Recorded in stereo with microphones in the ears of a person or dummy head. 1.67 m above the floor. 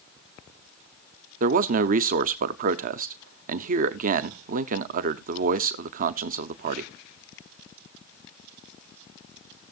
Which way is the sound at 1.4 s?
45° right (ahead or behind).